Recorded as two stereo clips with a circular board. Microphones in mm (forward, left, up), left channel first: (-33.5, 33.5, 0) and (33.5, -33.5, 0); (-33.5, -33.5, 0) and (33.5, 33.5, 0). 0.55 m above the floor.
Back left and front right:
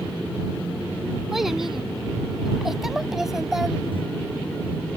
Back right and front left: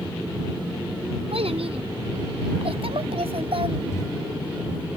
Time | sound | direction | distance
1.3 | a child speaking | 40° left | ?
3.9 | a microwave | 75° right | ?